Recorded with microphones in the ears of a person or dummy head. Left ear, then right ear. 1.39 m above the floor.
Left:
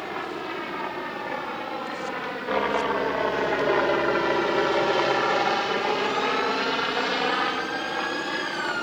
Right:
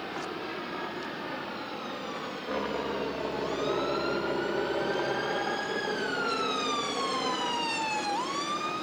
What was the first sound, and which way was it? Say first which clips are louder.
A helicopter: left 4 dB; 15° left (ahead or behind).